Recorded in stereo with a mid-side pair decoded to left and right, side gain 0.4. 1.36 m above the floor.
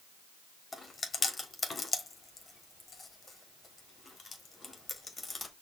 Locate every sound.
0.7 s chewing: 35° left, 1.3 m